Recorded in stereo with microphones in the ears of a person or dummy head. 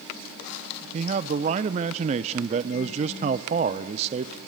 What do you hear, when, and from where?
0.9 s a man speaking: 35° right (ahead or behind), 0.8 m